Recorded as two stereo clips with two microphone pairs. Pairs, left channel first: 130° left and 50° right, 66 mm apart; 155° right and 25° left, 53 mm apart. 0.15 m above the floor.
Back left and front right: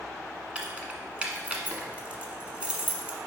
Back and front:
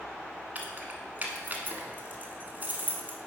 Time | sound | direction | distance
0.6 | keys jangling | 5° left | 1.2 m